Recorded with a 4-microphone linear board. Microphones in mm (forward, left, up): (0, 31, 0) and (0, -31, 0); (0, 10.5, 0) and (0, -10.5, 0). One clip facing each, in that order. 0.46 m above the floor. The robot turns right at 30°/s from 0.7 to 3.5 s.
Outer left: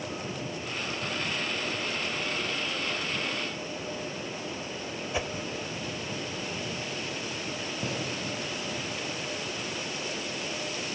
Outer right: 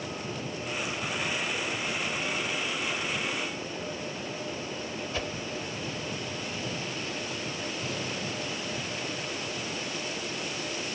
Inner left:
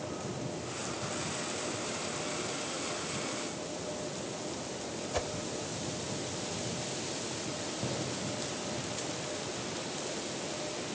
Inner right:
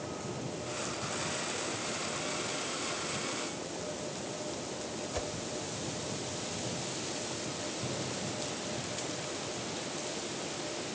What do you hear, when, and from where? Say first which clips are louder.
5.1 s a whoosh: outer left 3 dB, inner left 4 dB; 15° left (ahead or behind), 0.8 m
7.8 s a gunshot: outer left 4 dB, inner left 3 dB; 45° left (ahead or behind), 8 m